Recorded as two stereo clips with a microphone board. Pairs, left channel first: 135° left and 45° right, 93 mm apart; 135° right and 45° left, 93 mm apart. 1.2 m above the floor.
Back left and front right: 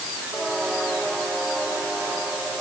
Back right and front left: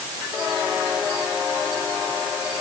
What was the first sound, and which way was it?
Only background noise.